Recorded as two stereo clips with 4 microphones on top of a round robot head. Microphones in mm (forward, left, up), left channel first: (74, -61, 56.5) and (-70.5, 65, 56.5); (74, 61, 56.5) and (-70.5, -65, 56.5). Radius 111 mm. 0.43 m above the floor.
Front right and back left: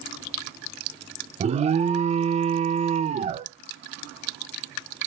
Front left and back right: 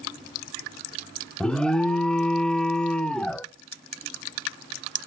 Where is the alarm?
125° left, 0.8 m.